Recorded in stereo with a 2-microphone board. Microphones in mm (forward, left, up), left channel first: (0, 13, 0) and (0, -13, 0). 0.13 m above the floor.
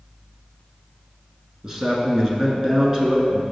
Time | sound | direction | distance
1.6 | a man speaking | 25° right (ahead or behind) | 1.3 m